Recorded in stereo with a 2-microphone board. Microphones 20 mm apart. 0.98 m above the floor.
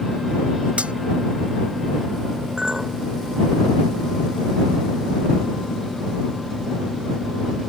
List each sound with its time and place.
0.8 s cutlery clinking: 85° right
2.6 s a clink: 35° right (ahead or behind)